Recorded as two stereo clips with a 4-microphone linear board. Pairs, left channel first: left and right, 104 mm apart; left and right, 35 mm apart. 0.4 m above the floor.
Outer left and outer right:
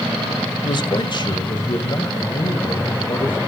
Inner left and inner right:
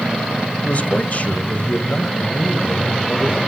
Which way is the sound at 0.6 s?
50° left (ahead or behind).